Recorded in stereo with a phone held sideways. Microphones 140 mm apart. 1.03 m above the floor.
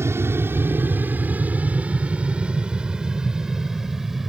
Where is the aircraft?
20° right (ahead or behind); by 4.3 s centre (ahead or behind).